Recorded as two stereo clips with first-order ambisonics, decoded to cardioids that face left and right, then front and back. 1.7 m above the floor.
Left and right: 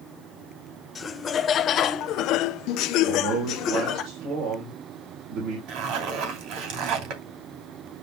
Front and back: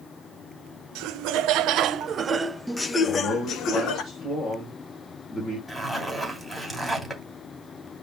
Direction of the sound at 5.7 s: 90° right.